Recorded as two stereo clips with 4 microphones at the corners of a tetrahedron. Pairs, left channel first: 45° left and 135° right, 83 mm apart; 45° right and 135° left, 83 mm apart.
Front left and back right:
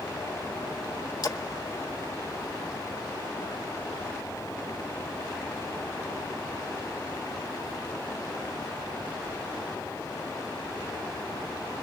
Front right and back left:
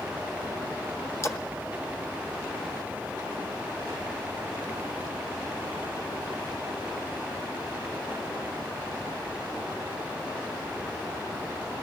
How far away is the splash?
About 0.9 m.